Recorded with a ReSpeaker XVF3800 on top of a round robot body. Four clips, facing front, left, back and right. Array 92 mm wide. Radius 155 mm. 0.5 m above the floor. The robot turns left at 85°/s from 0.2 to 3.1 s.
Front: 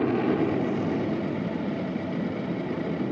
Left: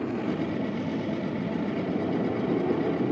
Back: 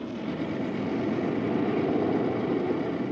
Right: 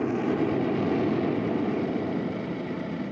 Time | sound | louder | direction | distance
0.0 | an aircraft | right 3 dB, front 8 dB | 20° right | ?